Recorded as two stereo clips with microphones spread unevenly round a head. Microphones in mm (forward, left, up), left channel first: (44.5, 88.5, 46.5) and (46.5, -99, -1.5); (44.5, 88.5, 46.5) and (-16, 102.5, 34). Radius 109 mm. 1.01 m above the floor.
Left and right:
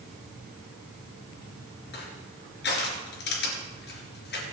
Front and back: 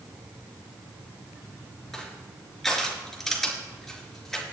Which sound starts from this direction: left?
Crushing, at 1.9 s.